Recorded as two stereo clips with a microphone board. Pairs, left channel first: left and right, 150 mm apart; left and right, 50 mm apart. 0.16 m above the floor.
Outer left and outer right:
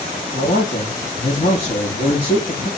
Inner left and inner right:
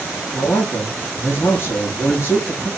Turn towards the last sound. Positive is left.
turn(degrees=50)  # may be behind; listen again after turning